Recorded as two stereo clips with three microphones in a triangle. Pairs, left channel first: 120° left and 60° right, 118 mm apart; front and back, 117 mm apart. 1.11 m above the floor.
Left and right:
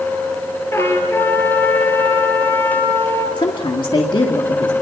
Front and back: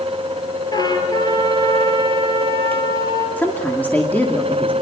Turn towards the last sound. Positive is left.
turn(degrees=75)